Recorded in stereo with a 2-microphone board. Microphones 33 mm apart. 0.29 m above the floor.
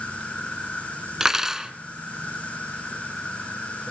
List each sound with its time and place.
0.0 s an insect: 45° left (ahead or behind), 9.5 m
1.2 s cutlery clinking: 15° right (ahead or behind), 1.6 m